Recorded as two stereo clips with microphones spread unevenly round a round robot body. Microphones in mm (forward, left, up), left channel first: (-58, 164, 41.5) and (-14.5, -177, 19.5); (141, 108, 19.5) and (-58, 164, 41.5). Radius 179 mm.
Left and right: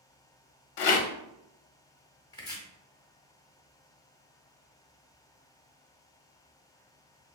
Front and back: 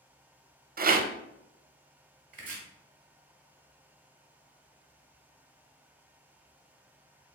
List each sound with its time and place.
0.8 s a rattle: 110° left, 0.5 m
2.3 s chopping: 175° left, 0.9 m